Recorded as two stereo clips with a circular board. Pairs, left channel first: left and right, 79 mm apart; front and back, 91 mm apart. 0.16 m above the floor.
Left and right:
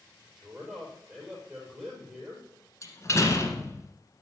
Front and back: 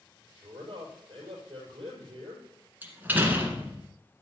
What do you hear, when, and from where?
0.3 s a man speaking: 165° right, 5 m
2.8 s a door slam: 120° left, 1.6 m